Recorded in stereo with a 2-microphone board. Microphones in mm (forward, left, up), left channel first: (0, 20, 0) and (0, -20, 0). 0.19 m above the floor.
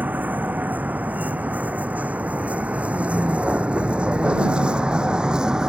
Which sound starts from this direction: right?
A vehicle, at 0.0 s.